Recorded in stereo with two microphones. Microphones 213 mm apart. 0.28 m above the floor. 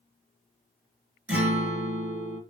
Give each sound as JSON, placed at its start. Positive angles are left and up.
{"t": 1.3, "sound": "a guitar", "side_deg": -10, "distance_m": 4.0}